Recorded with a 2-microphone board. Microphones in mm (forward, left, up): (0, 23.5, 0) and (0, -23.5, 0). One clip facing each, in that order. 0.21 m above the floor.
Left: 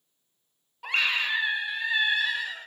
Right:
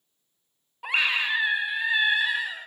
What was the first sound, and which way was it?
A scream, 10° right (ahead or behind).